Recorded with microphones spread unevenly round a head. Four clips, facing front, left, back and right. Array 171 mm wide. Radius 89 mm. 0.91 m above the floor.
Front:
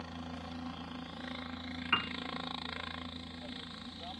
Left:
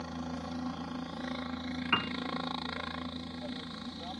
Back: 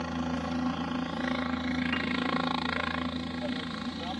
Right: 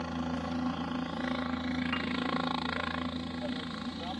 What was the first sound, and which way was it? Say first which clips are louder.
A helicopter: right 4 dB, back 12 dB; 160° right.